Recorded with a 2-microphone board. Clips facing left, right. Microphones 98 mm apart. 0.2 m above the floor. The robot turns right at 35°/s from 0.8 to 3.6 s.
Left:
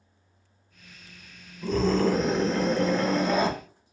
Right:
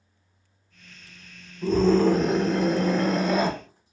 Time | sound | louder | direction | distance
1.6 | a scream | right 4 dB | 20° right (ahead or behind) | 1.0 m